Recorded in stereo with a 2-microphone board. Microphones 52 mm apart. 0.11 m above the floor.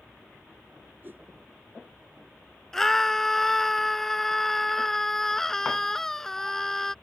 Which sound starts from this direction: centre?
A scream, at 2.7 s.